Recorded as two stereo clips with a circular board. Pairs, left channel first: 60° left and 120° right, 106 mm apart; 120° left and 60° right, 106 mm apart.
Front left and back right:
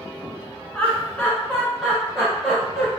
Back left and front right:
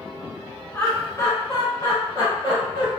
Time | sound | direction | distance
0.7 | laughter | 100° left | 1.0 m